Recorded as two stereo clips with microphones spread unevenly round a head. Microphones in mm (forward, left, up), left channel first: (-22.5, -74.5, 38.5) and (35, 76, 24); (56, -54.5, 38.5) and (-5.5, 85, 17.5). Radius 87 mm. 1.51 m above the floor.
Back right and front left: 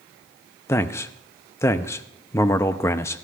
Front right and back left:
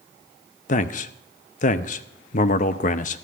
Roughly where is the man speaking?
Ahead right.